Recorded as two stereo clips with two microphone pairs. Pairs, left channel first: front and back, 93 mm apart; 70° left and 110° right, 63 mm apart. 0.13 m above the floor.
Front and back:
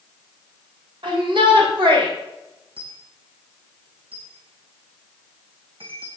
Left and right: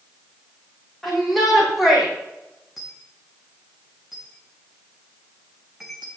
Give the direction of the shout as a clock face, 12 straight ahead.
7 o'clock.